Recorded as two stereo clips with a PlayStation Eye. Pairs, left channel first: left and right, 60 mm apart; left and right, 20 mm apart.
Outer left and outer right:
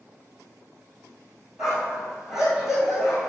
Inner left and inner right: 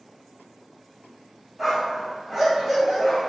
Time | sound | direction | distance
1.6 | a dog barking | 5° right (ahead or behind) | 1.6 m